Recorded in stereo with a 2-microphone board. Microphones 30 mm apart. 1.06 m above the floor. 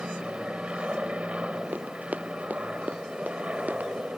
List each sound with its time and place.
0.0 s an aircraft: 45° right (ahead or behind)
1.7 s running footsteps: 65° right (ahead or behind); by 3.9 s 60° right (ahead or behind)